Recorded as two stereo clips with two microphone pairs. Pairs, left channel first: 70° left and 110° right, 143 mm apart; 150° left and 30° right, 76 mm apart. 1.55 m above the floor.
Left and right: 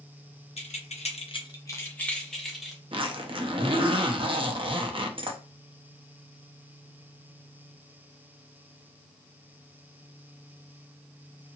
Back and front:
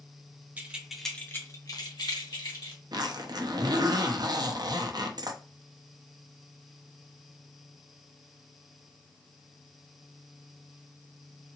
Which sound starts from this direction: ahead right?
A zipper, at 2.9 s.